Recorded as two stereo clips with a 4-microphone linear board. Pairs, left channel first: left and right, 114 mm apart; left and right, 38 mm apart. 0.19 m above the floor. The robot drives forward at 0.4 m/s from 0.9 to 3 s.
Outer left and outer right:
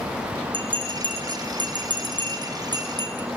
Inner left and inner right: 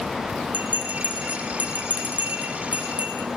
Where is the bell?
45° right (ahead or behind), 4.5 m; by 3.3 s 35° right (ahead or behind), 5.5 m.